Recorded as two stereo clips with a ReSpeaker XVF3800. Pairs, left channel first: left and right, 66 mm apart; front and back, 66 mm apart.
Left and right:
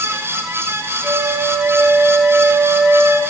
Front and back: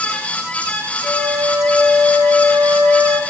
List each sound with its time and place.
1.0 s a flute: 115° right, 7 m